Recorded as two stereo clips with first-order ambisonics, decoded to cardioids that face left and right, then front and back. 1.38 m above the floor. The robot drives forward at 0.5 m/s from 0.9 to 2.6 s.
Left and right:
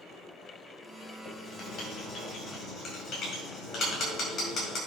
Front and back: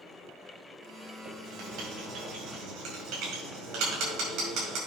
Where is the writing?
150° left, 4 m; by 4.8 s 155° left, 4.5 m.